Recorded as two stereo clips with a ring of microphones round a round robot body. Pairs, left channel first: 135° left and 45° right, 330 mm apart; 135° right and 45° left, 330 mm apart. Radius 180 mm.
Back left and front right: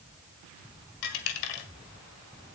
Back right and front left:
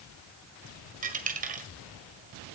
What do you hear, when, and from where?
1.0 s a dropped coin: 115° left, 1.8 m